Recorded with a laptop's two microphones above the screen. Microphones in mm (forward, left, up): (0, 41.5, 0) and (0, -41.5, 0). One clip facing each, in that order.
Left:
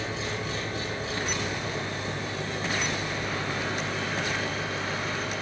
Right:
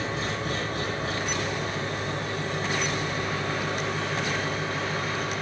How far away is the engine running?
About 4.5 m.